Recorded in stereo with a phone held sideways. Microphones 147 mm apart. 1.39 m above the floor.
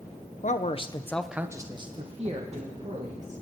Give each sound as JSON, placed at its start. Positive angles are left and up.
{"t": 0.4, "sound": "a man speaking", "side_deg": 60, "distance_m": 1.1}